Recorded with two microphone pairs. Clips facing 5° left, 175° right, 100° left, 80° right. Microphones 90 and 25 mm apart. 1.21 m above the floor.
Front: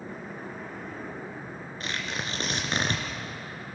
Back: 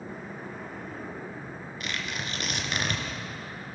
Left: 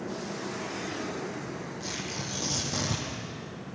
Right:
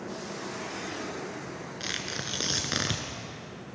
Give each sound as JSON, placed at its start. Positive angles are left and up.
{"t": 1.8, "sound": "tearing paper", "azimuth_deg": -50, "distance_m": 3.0}